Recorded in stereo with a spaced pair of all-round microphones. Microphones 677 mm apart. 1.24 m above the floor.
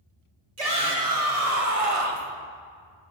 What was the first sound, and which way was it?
A shout, 70° right (ahead or behind).